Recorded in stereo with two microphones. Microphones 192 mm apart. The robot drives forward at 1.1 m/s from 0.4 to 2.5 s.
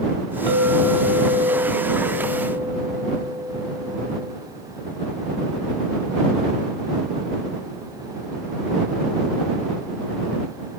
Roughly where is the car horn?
I don't hear a car horn.